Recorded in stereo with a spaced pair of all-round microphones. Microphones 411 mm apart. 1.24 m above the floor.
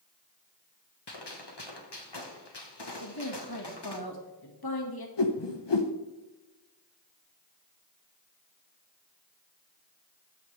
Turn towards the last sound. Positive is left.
turn(degrees=85)